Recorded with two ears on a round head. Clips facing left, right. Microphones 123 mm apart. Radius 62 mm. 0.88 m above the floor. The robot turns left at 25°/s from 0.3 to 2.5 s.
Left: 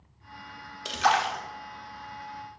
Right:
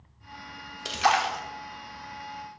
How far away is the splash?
About 0.5 m.